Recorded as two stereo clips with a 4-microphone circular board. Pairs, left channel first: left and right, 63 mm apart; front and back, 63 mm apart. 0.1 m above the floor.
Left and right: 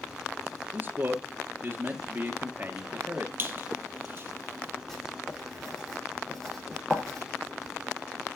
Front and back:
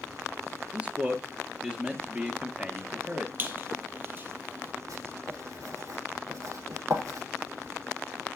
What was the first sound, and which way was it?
A man speaking, 120° right.